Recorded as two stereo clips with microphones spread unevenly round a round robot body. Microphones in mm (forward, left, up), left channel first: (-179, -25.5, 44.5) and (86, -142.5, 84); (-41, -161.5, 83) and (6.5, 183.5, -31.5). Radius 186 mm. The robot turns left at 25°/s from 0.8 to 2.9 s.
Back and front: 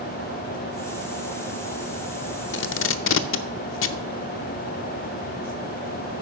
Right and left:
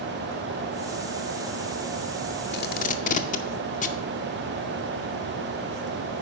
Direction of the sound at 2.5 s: 165° right.